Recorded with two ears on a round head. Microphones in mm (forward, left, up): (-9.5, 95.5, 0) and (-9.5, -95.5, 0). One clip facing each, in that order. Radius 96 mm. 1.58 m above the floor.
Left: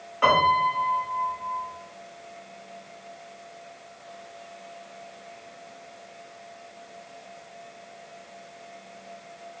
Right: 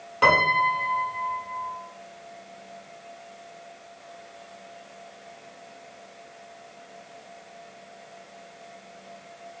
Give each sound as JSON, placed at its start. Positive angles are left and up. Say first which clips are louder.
{"t": 0.2, "sound": "a piano", "louder": "even", "side_deg": -50, "distance_m": 1.7}